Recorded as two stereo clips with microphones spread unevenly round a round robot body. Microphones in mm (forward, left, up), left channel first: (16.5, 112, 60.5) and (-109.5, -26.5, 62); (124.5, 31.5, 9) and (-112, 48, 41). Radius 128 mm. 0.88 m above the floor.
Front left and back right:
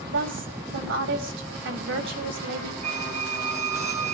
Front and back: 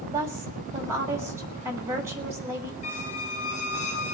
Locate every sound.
0.1 s a woman speaking: 105° right, 6.5 m
2.8 s a squeak: 70° right, 2.0 m